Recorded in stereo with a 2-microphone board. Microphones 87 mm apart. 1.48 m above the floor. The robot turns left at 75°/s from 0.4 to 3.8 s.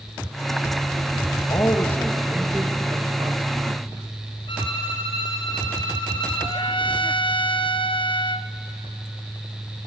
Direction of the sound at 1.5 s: 55° left.